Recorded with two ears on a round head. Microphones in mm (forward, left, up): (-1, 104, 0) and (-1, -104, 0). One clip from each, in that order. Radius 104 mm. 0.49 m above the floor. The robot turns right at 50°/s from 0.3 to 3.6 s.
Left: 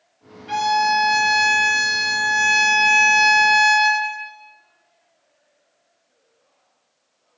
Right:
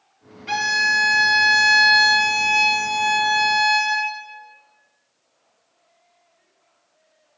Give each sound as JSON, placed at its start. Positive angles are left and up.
{"t": 0.5, "sound": "a violin", "azimuth_deg": -100, "distance_m": 0.5}